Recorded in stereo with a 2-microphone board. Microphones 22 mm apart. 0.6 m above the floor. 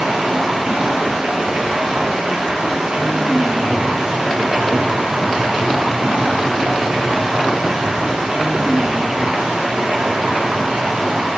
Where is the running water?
65° right (ahead or behind), 4.5 m.